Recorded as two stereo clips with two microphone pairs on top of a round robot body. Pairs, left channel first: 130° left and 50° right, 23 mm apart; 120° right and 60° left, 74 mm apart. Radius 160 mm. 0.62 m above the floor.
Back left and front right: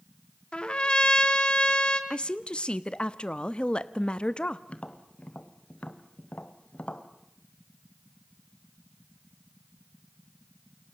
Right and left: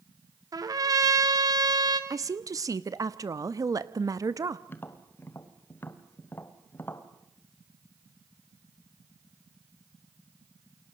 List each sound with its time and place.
0.5 s a trumpet: 85° left, 3 m
2.1 s a woman speaking: 90° left, 1.1 m
4.7 s tapping: 175° left, 1.5 m